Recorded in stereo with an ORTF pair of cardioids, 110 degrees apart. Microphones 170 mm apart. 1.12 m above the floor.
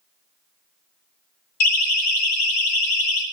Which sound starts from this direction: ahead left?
A siren, at 1.6 s.